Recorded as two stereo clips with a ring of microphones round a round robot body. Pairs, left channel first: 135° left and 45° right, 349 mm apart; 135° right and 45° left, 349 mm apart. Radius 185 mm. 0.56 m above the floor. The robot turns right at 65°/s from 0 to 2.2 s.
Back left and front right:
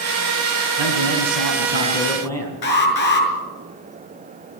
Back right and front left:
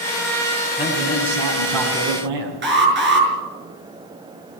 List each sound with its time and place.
0.8 s a man speaking: 40° right, 5 m; by 2.5 s 55° left, 5 m
2.6 s an alarm: 105° left, 6 m